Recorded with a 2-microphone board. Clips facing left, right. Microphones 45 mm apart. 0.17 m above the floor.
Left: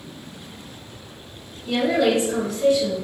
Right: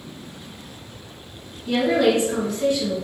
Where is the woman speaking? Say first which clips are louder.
Right 1 dB; 45° right (ahead or behind), 1.7 m.